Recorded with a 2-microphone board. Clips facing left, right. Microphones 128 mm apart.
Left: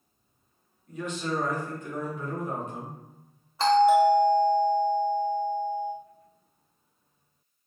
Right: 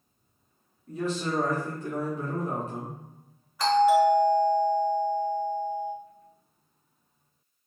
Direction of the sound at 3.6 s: 30° left (ahead or behind).